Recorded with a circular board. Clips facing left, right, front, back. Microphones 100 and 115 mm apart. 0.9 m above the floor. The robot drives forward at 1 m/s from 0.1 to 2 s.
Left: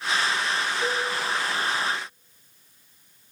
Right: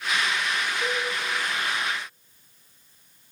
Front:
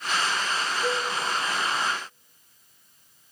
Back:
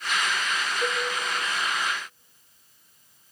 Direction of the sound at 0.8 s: Straight behind.